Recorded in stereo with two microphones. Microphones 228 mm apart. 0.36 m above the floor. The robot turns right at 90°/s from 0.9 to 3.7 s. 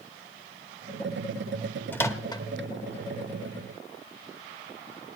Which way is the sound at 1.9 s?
10° left (ahead or behind).